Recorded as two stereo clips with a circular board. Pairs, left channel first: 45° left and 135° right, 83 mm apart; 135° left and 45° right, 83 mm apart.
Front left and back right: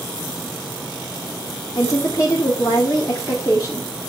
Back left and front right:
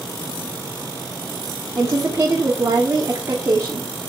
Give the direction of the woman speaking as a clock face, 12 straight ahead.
12 o'clock.